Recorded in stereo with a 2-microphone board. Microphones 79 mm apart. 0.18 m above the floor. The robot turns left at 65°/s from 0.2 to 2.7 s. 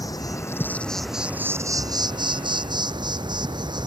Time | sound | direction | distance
0.0 | an insect | 55° left | ?